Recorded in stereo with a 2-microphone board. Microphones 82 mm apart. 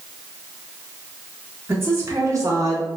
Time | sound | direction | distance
1.7 | a woman speaking | 25° right (ahead or behind) | 0.7 m